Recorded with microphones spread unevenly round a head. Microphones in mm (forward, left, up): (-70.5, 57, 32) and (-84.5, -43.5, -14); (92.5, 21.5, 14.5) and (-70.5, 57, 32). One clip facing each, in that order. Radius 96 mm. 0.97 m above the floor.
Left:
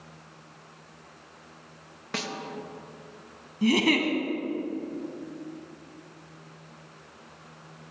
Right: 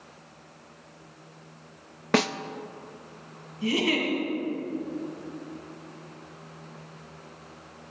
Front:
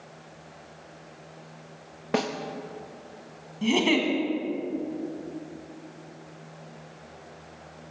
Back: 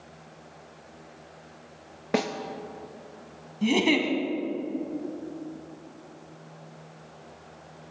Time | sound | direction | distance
2.1 | a snare drum | 105° right | 0.6 m
3.6 | a giggle | 85° left | 2 m